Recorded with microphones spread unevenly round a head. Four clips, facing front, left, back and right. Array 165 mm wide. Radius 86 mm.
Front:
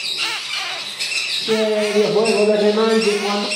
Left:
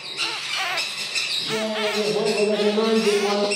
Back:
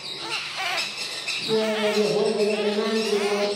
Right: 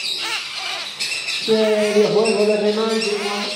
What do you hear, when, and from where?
1.5 s laughter: 75° right, 1.6 m; by 3.5 s 25° left, 1.8 m